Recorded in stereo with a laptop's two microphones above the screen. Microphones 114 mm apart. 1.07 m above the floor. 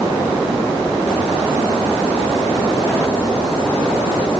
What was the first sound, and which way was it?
Only background noise.